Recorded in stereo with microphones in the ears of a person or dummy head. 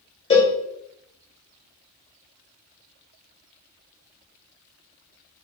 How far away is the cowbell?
About 0.6 m.